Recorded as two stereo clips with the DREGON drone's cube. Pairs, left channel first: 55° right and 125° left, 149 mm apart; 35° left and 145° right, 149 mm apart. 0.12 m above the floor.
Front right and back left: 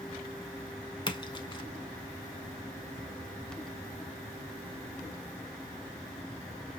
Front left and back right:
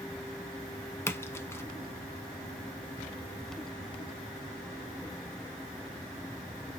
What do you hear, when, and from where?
1.1 s a splash: 25° right, 0.7 m